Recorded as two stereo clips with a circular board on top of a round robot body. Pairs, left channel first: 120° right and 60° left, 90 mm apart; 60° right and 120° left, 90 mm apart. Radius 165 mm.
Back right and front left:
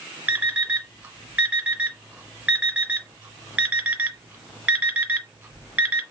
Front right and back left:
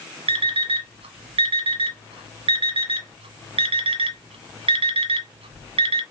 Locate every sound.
0.3 s an alarm clock: 135° left, 0.9 m